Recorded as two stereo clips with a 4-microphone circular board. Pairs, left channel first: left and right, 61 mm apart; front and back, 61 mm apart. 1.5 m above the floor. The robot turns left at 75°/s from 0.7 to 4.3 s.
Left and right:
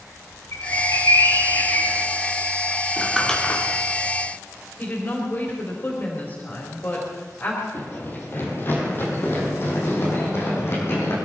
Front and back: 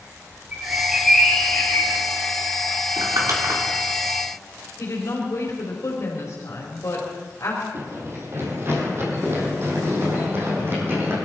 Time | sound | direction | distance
0.5 | a bird | 120° left | 3 m
3.0 | crumpling | 165° right | 3 m
4.8 | a woman speaking | 30° left | 4 m
7.7 | running footsteps | 145° left | 3.5 m